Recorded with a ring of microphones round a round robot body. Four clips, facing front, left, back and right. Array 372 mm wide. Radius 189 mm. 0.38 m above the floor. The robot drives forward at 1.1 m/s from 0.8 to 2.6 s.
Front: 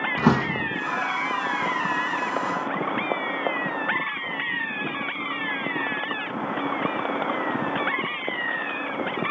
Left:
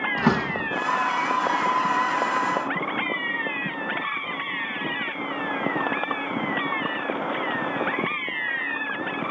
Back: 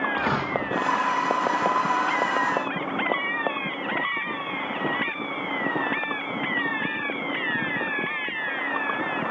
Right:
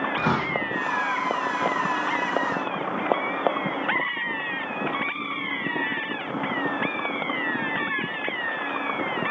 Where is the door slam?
15° left, 8.5 m.